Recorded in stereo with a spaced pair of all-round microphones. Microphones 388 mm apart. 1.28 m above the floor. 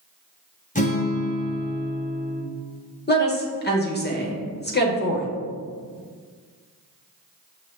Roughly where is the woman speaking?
Left.